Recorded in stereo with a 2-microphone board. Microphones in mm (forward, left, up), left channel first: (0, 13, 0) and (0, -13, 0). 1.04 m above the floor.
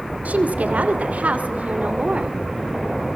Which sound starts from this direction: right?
A woman speaking, at 0.2 s.